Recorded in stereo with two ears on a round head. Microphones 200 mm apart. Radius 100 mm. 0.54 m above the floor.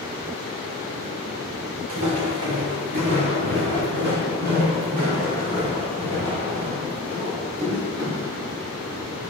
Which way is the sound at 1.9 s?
80° right.